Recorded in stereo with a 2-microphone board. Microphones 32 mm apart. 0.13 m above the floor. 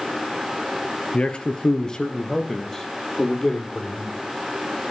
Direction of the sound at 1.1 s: 30° left (ahead or behind).